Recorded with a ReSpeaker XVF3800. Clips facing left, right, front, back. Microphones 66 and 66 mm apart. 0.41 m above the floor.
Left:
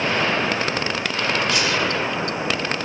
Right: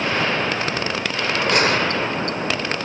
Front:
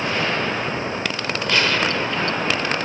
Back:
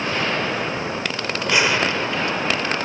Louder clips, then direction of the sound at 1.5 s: Right 3 dB, back 1 dB; 110° right.